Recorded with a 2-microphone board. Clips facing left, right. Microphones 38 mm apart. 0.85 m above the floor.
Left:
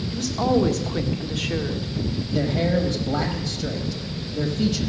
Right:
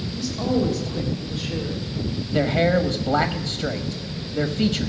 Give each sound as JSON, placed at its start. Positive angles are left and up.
{"t": 0.1, "sound": "a woman speaking", "side_deg": 75, "distance_m": 1.7}
{"t": 2.3, "sound": "a man speaking", "side_deg": -45, "distance_m": 1.1}